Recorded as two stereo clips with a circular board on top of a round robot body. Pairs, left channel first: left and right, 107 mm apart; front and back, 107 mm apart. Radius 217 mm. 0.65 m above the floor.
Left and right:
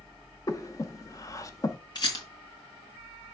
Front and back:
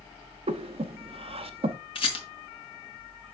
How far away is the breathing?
About 0.6 m.